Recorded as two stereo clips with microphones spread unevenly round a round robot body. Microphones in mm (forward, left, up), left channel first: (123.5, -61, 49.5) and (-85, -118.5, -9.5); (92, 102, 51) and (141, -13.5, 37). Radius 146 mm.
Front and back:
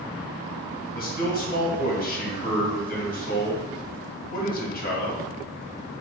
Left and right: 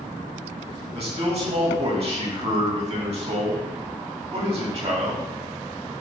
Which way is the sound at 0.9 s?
35° right.